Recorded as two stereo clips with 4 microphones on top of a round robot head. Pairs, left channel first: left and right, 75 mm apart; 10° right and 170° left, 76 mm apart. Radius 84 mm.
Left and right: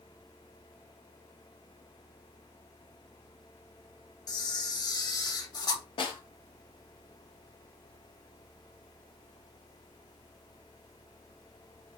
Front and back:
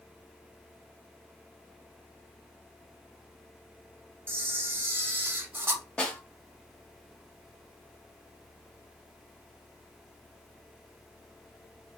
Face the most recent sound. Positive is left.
turn(degrees=70)